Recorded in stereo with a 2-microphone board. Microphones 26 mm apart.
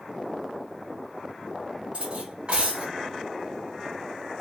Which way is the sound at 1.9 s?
45° right (ahead or behind).